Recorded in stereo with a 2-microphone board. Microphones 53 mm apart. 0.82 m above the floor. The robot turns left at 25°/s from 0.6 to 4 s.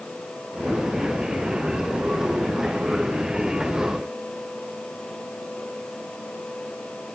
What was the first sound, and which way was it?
Only background noise.